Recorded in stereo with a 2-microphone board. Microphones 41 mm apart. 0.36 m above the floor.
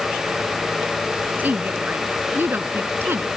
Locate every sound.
1.4 s a woman speaking: 45° right (ahead or behind); by 3.4 s 60° right (ahead or behind)